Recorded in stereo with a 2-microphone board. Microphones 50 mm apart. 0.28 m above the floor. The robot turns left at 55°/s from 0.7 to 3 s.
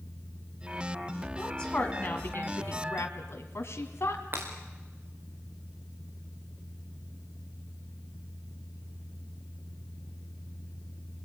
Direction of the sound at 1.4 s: 10° left (ahead or behind).